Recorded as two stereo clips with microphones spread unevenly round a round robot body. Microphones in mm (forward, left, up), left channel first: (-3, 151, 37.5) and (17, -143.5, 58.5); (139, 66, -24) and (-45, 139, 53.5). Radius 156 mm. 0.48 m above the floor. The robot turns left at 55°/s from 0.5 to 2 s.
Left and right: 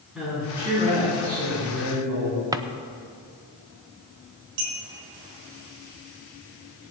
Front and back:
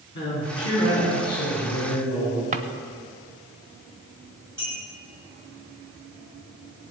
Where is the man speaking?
Straight ahead, 5 m; by 2.4 s 80° right, 5 m.